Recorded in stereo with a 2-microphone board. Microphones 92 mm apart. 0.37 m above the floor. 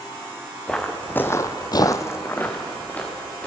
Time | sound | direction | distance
0.7 | footsteps | 10° left (ahead or behind) | 1.4 m